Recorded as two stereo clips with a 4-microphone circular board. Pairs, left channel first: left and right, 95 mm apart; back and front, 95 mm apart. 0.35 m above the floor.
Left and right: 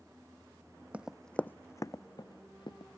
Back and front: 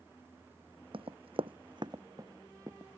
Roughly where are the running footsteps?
Ahead.